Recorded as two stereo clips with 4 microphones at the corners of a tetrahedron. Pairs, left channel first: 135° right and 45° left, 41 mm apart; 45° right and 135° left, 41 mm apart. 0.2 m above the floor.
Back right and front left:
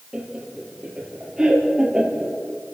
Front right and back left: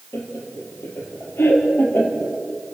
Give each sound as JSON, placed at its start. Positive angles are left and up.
{"t": 0.1, "sound": "laughter", "azimuth_deg": -25, "distance_m": 4.5}